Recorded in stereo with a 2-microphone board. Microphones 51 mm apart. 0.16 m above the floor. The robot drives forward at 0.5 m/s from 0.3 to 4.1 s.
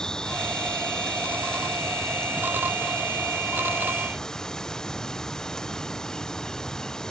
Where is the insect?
15° left (ahead or behind); by 7.1 s 10° left (ahead or behind).